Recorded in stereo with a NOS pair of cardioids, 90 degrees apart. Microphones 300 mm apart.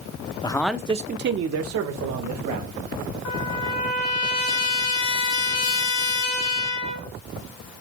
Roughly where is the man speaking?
Ahead.